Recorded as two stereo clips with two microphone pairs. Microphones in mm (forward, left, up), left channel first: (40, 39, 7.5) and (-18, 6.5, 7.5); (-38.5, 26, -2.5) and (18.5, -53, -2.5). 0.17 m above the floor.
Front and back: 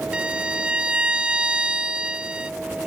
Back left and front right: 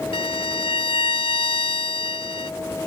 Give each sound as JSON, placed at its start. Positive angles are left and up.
{"t": 0.1, "sound": "a violin", "azimuth_deg": 135}